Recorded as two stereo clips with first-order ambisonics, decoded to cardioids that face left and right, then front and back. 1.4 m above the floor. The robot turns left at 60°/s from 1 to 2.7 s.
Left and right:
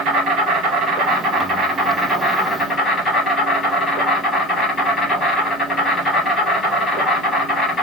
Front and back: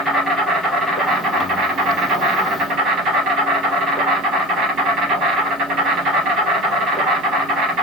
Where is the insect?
105° right, 1.9 m; by 7.8 s 155° left, 1.9 m.